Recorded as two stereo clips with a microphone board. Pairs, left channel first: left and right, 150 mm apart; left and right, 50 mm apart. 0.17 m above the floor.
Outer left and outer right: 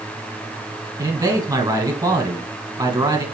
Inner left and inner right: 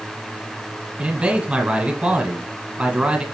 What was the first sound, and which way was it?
A man speaking, 25° right (ahead or behind).